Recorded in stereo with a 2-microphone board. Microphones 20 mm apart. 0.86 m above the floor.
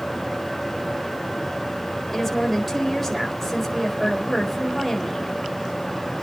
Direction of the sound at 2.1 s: 10° left (ahead or behind).